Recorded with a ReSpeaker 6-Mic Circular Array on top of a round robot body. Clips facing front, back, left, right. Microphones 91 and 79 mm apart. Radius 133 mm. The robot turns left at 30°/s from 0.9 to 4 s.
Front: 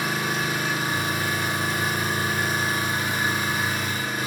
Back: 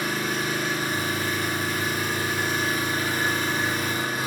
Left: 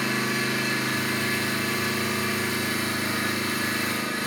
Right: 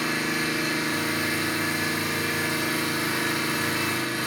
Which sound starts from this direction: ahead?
An engine running, at 0.0 s.